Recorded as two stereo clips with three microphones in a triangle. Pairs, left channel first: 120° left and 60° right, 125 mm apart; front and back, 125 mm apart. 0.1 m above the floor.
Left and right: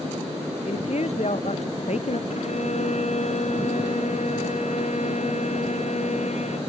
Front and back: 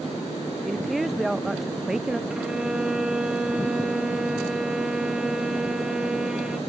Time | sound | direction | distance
0.7 | a woman speaking | 90° left | ?
2.3 | a violin | 95° left | ?